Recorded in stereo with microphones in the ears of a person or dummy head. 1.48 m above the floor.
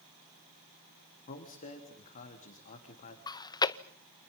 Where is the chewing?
25° left (ahead or behind), 0.7 m.